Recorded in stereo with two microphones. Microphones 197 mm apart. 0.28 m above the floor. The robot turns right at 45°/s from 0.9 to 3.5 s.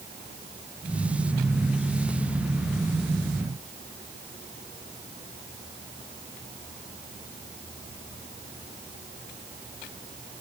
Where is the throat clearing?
No throat clearing in this recording.